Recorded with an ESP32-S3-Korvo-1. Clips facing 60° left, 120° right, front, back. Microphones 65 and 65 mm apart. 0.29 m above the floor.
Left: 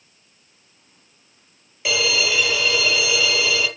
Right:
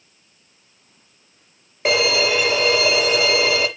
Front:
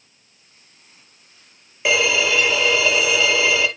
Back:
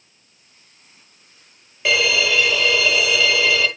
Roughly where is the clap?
No clap in this recording.